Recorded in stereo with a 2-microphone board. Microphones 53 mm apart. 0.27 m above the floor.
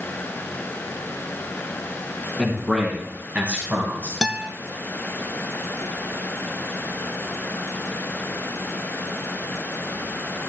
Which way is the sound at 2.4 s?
10° right (ahead or behind).